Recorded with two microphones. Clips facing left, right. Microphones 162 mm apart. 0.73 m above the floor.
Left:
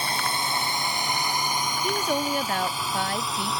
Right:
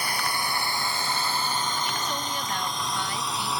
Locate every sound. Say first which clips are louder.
0.0 s a drone: left 1 dB; 25° left (ahead or behind); by 3.6 s centre (ahead or behind)
1.8 s a woman speaking: left 6 dB; 50° left (ahead or behind)